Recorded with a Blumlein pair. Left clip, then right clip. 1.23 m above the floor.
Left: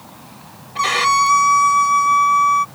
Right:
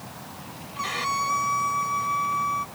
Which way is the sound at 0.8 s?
60° left.